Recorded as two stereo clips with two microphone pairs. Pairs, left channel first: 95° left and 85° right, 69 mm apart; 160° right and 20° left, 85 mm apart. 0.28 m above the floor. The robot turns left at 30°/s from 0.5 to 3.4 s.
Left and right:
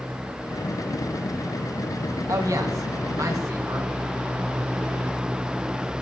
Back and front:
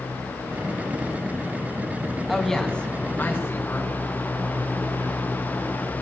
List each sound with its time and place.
2.3 s a woman speaking: 70° right, 3 m; by 3.9 s 105° right, 3 m